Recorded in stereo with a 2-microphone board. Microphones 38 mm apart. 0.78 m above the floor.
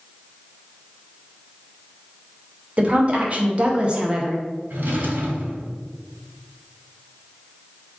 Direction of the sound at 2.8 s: 35° right (ahead or behind).